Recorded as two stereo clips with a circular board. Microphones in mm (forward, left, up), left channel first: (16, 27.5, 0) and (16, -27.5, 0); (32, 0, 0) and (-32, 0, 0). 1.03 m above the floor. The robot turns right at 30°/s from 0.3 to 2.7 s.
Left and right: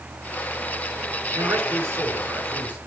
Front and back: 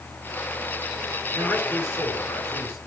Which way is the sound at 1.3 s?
55° right.